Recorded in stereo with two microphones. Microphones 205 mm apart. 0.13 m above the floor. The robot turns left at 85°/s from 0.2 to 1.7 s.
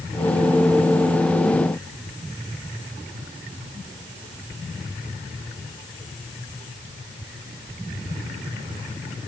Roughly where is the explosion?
I don't hear an explosion.